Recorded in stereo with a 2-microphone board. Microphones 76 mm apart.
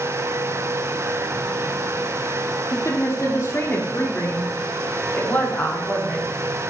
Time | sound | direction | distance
2.7 | a woman speaking | 50° left (ahead or behind) | 5 m